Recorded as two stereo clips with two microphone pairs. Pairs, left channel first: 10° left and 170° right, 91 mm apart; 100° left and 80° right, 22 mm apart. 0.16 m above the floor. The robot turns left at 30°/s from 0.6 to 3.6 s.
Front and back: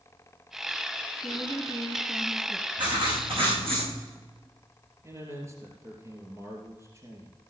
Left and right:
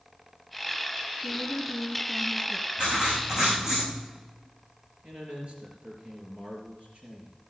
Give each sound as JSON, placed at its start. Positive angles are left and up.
{"t": 1.2, "sound": "a woman speaking", "azimuth_deg": 95, "distance_m": 1.8}
{"t": 2.8, "sound": "writing", "azimuth_deg": -130, "distance_m": 6.0}
{"t": 5.0, "sound": "a man speaking", "azimuth_deg": -110, "distance_m": 2.5}